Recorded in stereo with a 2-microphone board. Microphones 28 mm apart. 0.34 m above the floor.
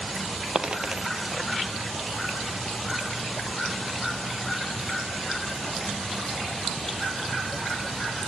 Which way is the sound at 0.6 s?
35° right (ahead or behind).